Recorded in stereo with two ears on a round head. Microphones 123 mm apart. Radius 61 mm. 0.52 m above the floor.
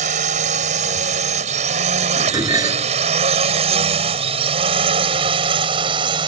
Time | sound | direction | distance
0.0 | a drone | 60° right (ahead or behind) | ?
2.2 | dishes clattering | 30° right (ahead or behind) | ?